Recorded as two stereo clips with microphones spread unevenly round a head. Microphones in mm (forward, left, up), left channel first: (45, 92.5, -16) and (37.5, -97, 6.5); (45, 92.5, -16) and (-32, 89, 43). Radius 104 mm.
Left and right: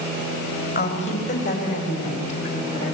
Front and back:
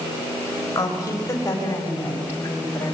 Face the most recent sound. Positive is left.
turn(degrees=70)